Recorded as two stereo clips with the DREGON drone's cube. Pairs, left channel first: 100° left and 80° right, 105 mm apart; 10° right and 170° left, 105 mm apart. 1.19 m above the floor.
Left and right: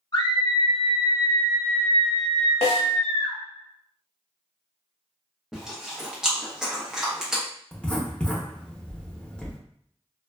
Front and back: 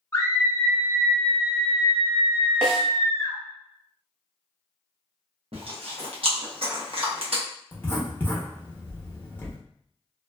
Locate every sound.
0.1 s a scream: 55° left, 0.8 m; by 3.4 s 170° right, 1.9 m
2.6 s a snare drum: 85° left, 1.1 m
5.5 s chewing: 165° right, 0.9 m
7.7 s writing: 30° left, 0.8 m